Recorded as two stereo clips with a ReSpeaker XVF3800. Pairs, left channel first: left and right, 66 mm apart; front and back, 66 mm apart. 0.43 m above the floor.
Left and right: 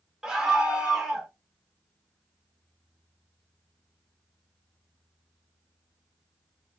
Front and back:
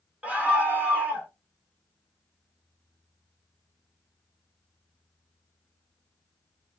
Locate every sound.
0.2 s a scream: 160° right, 0.7 m